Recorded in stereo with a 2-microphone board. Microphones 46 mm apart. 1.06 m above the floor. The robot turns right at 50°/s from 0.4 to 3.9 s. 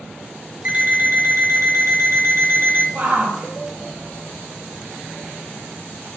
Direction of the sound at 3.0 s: 35° right (ahead or behind).